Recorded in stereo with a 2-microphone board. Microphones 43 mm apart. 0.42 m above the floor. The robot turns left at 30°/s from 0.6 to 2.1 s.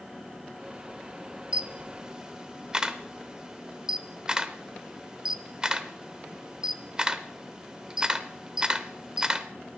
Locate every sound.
1.5 s a camera shutter: 30° right (ahead or behind), 0.8 m; by 9.5 s 20° right (ahead or behind), 0.8 m